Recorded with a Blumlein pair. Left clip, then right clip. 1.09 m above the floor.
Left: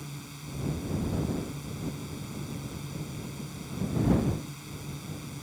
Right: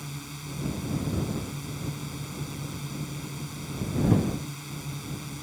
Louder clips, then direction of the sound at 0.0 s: Right 4 dB; 15° right.